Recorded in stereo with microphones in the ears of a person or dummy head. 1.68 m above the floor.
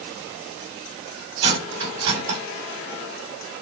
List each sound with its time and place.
1.4 s cutlery clinking: 70° right (ahead or behind), 2 m